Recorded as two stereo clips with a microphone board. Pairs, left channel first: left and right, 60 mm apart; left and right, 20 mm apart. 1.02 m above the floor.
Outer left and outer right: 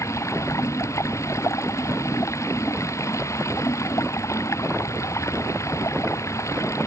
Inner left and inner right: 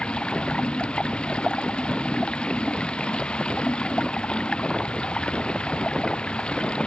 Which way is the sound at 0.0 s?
60° left (ahead or behind).